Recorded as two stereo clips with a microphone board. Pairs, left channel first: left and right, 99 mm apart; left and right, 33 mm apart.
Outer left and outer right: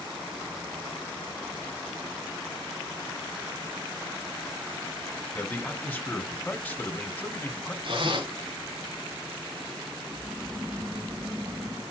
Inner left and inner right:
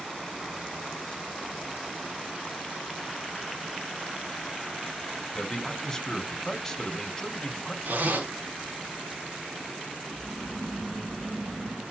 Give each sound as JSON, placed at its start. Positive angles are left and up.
{"t": 5.3, "sound": "a man speaking", "side_deg": 15, "distance_m": 2.5}
{"t": 7.8, "sound": "a zipper", "side_deg": -60, "distance_m": 4.0}
{"t": 10.1, "sound": "snoring", "side_deg": -30, "distance_m": 6.5}